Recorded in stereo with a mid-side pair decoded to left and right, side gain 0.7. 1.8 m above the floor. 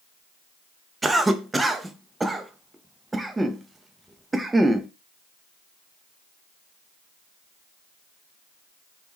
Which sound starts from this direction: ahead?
A cough, at 1.0 s.